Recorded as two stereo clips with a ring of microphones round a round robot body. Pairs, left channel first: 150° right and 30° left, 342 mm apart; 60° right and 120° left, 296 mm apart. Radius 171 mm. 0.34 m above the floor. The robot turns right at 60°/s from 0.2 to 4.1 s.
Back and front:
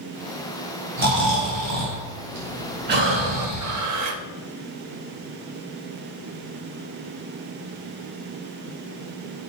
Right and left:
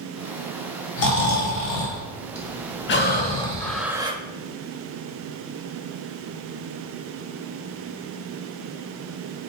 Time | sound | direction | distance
1.0 | snoring | 35° right | 3 m
2.9 | breathing | 25° right | 0.7 m